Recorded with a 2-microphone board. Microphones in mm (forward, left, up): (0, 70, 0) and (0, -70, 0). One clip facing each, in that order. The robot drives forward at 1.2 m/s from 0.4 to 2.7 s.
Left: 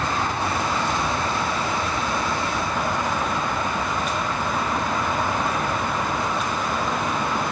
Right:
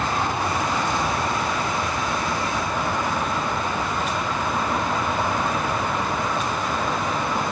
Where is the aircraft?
15° right (ahead or behind); by 7.5 s 20° right (ahead or behind).